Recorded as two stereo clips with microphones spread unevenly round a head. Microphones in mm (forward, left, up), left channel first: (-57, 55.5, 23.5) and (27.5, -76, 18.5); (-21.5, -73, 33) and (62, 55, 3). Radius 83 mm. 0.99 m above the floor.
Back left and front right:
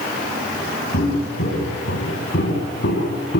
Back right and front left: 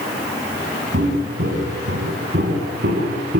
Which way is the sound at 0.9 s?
100° left.